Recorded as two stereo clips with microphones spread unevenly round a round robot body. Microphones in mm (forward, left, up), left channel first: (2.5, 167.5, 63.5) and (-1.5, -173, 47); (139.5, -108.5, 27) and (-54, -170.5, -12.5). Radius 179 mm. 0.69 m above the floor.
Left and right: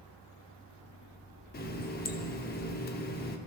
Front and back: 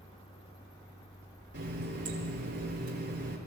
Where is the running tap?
150° left, 1.1 m.